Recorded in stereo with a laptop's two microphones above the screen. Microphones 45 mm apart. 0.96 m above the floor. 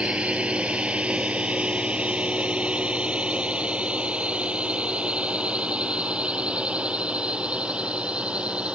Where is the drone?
25° right (ahead or behind); by 8.8 s 20° right (ahead or behind).